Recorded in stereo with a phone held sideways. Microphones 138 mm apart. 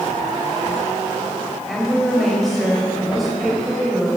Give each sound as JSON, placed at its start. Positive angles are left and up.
{"t": 1.7, "sound": "a woman speaking", "side_deg": 0, "distance_m": 6.0}